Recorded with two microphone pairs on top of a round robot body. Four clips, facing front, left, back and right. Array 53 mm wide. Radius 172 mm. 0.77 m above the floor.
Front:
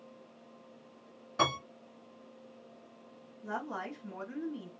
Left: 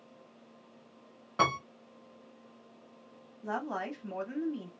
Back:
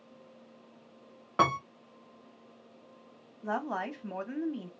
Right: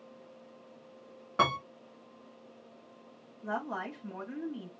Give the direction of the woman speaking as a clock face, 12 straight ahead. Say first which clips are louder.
Left 1 dB, back 5 dB; 6 o'clock.